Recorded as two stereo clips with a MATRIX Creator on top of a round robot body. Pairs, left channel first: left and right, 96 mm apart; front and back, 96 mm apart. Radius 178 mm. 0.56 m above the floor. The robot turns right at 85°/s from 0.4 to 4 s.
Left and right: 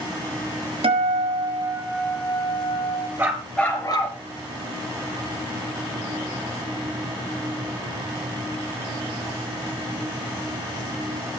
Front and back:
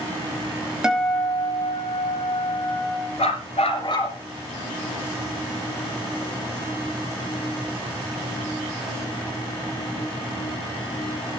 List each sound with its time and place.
0.8 s a guitar: 95° right, 6 m; by 3.1 s 95° left, 6 m
3.2 s a dog barking: 25° right, 4.5 m; by 4.2 s 45° left, 4.5 m